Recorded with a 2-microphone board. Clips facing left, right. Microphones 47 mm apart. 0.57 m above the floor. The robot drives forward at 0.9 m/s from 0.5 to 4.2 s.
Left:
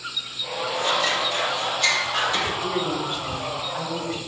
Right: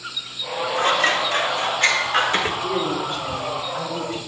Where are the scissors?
45° right (ahead or behind), 1.7 m; by 2.5 s 40° right (ahead or behind), 1.9 m.